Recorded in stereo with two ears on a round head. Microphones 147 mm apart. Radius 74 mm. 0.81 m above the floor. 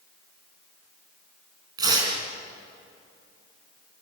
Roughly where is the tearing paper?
Right.